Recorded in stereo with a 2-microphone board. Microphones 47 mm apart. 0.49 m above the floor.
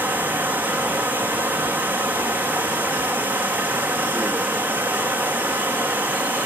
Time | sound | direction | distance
0.0 | running water | 35° right (ahead or behind) | 4 m